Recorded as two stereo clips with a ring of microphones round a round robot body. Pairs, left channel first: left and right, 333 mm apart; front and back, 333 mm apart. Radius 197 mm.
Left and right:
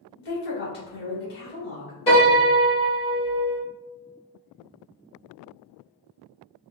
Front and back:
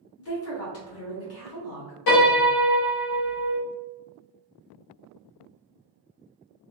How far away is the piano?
About 1.6 m.